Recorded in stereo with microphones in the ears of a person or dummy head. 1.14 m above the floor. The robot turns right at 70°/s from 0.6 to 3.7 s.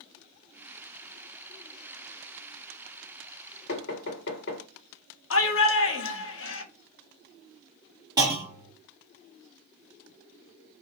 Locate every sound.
3.7 s knocking: 70° left (ahead or behind), 1.7 m
5.3 s a shout: 65° left (ahead or behind), 1.0 m
8.2 s a clunk: 25° right (ahead or behind), 1.3 m